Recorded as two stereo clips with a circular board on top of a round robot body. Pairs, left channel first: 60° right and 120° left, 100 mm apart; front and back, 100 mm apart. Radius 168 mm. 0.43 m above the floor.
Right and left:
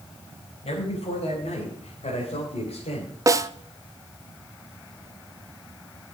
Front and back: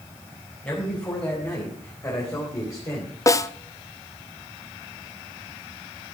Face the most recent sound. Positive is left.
turn(degrees=60)